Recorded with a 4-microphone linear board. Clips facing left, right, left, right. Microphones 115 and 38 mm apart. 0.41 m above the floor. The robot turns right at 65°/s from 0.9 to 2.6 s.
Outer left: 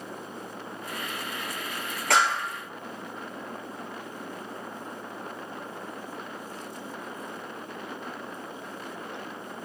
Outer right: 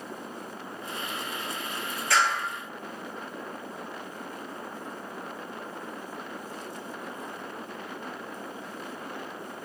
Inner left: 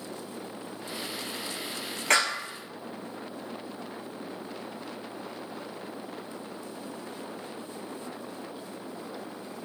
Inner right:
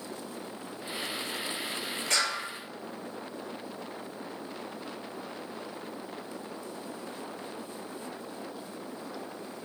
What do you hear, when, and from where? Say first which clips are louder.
2.1 s a clap: outer left 2 dB, inner left 5 dB; 75° left (ahead or behind), 3 m; by 2.4 s 60° left (ahead or behind), 3 m